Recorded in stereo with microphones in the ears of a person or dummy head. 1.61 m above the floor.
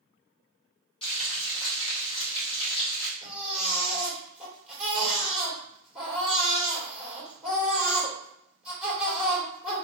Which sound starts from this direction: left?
Frying, at 1.0 s.